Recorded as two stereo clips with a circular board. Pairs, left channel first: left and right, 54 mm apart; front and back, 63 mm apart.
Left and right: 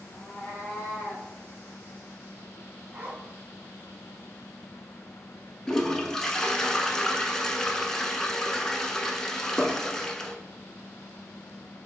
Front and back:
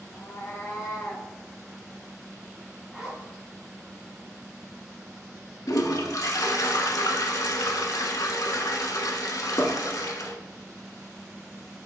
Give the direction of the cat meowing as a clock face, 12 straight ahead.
11 o'clock.